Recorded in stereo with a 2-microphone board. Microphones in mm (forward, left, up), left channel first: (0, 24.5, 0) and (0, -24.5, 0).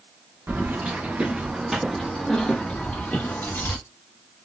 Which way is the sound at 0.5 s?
40° right (ahead or behind).